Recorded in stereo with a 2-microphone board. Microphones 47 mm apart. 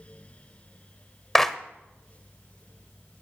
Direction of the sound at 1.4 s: 5° left (ahead or behind).